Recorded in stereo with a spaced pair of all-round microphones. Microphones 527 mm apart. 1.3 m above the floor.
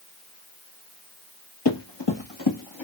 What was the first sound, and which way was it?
Running footsteps, 50° left (ahead or behind).